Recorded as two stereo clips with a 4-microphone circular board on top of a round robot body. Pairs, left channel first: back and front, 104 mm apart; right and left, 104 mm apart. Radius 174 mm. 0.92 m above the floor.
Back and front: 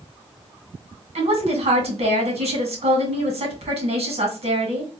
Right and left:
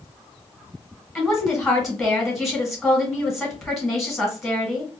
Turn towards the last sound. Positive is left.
turn(degrees=0)